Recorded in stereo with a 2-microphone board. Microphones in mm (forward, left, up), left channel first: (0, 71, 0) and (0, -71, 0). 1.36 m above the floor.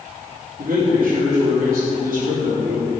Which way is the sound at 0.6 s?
80° right.